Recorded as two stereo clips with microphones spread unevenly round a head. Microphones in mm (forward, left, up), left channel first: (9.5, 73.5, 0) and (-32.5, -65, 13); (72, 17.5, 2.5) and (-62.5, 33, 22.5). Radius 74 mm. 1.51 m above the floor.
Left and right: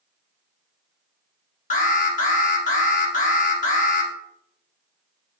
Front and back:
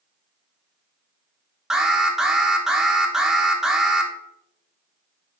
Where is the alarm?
80° left, 1.1 m.